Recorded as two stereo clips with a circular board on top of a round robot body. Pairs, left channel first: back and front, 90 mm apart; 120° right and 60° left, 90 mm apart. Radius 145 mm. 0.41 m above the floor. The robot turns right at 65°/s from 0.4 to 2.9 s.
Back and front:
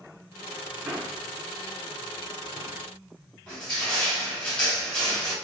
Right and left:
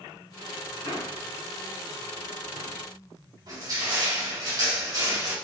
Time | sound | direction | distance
0.8 | a man speaking | 80° right | 2.5 m
3.5 | crushing | 95° left | 3 m